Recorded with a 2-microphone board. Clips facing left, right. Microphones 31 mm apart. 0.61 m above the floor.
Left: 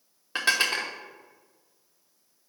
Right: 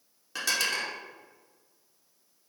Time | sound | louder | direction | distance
0.3 | dishes clattering | left 4 dB | 40° left (ahead or behind) | 0.9 m